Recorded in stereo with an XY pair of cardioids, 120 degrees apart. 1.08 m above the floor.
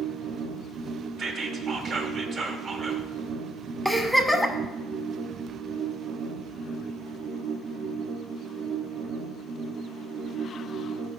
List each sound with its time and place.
0.0 s a machine running: 65° right, 0.9 m
1.2 s whispering: 45° right, 1.3 m
3.9 s a giggle: 5° right, 0.9 m